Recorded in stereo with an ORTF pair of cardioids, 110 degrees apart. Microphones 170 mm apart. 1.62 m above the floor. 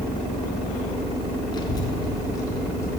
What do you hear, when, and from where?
1.5 s a child speaking: 25° left, 1.3 m; by 3.0 s 20° left, 2.5 m